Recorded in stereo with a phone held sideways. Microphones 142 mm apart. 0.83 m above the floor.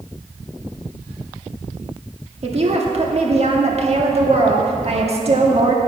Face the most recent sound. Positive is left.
turn(degrees=-50)  # may be behind; listen again after turning